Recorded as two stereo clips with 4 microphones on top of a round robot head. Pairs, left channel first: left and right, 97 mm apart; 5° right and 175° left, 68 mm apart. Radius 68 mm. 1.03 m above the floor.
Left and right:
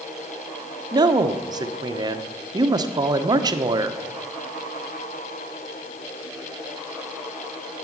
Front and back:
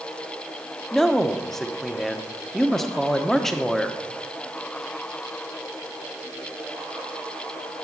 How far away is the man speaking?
About 1.0 m.